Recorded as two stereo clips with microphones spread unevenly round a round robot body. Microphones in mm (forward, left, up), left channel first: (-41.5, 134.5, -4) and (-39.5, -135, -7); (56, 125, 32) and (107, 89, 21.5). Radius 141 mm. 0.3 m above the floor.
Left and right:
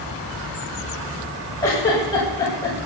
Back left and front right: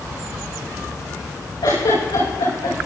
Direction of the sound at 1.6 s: 165° left.